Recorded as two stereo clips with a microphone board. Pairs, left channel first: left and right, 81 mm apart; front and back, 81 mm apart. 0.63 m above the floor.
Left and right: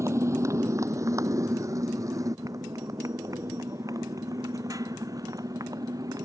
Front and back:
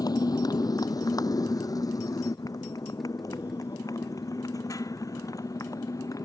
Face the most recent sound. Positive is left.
turn(degrees=-45)